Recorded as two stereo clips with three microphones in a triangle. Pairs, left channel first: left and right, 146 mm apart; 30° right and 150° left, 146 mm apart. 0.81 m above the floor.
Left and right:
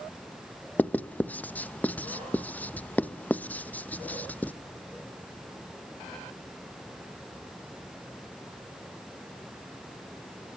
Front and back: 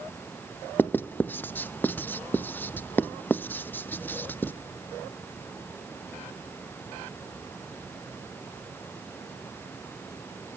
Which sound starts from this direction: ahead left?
Writing, at 0.8 s.